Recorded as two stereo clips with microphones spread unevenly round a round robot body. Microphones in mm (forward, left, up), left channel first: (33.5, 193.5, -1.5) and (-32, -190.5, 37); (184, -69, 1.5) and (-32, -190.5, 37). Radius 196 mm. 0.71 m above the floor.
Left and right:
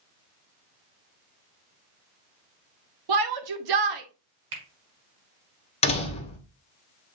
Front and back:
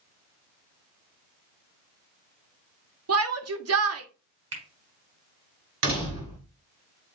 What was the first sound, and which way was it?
A shout, 130° right.